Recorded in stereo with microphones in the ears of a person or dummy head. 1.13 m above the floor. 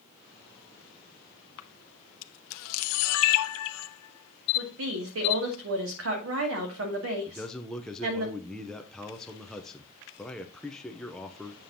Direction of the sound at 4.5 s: 80° right.